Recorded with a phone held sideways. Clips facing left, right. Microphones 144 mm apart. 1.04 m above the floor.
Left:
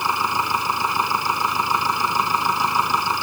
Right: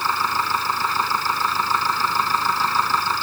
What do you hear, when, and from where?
0.0 s a machine running: 15° left (ahead or behind)